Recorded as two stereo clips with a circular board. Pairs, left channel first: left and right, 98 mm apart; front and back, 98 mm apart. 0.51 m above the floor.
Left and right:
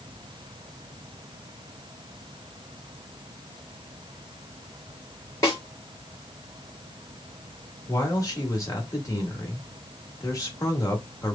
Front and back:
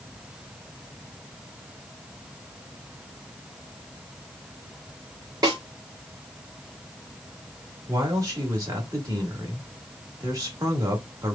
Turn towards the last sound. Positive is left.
turn(degrees=135)